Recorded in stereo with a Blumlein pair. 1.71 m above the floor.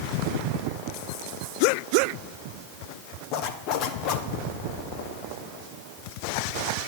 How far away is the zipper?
About 0.9 m.